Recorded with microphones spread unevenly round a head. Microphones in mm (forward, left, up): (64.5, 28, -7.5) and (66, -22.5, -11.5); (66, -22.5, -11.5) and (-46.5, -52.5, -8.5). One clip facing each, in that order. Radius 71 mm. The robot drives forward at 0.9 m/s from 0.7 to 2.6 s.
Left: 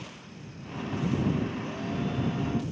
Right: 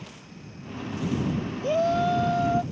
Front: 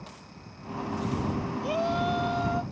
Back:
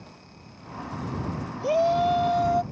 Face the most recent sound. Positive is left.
turn(degrees=-125)